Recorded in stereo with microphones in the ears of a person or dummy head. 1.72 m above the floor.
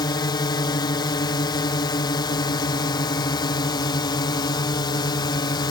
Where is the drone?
30° left (ahead or behind).